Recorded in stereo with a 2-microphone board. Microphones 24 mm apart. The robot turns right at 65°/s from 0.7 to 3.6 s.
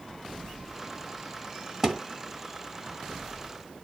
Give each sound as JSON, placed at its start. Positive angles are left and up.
{"t": 1.8, "sound": "a thud", "side_deg": -25, "distance_m": 1.5}